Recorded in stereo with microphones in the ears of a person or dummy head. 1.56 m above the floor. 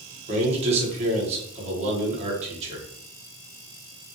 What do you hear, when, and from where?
0.3 s a man speaking: 35° right (ahead or behind), 1.7 m